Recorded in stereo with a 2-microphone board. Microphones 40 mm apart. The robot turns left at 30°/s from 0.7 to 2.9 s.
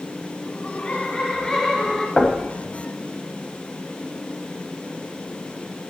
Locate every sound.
0.5 s laughter: 45° left, 2 m; by 2.1 s 5° left, 2 m
2.2 s knocking: 25° left (ahead or behind), 1.2 m; by 2.4 s 20° left (ahead or behind), 1.2 m